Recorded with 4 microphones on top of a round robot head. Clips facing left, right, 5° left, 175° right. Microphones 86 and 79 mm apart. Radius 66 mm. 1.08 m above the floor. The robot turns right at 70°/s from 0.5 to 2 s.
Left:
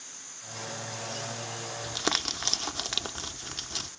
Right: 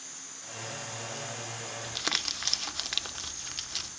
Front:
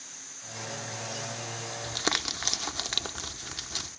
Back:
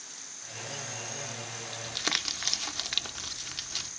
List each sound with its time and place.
1.8 s crumpling: 40° left, 0.9 m; by 3.9 s 50° left, 0.9 m